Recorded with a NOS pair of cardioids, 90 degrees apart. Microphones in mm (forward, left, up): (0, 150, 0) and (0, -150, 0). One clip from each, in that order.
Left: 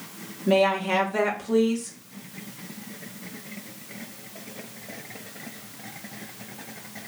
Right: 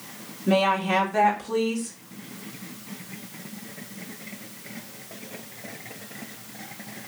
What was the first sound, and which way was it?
A woman speaking, 5° left.